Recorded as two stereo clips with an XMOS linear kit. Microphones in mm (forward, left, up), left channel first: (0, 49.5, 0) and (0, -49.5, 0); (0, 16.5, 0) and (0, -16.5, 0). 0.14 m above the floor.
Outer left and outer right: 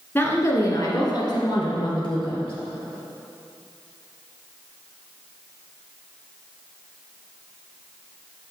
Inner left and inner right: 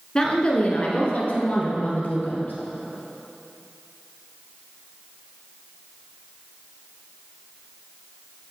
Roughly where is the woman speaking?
Left.